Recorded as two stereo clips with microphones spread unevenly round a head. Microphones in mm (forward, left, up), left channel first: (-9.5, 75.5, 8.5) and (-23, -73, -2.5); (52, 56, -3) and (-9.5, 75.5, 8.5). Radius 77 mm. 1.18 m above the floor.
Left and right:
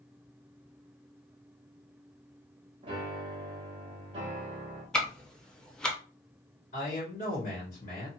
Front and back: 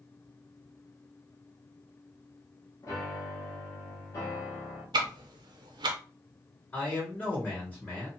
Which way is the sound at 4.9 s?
170° left.